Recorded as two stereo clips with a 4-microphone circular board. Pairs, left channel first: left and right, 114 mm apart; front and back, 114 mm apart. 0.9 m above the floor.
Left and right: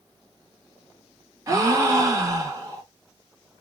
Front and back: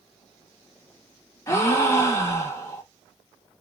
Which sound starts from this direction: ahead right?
A gasp, at 1.5 s.